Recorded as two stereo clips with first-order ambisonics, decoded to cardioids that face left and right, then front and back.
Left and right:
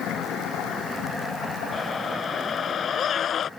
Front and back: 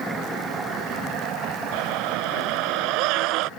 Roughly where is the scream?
Behind left.